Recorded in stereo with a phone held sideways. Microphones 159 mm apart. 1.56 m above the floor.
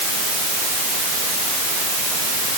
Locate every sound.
Only background noise.